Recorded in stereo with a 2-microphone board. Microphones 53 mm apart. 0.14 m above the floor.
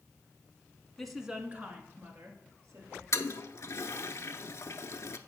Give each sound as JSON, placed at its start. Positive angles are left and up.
{"t": 1.0, "sound": "a woman speaking", "side_deg": 5, "distance_m": 1.1}
{"t": 3.1, "sound": "a toilet flushing", "side_deg": 60, "distance_m": 0.5}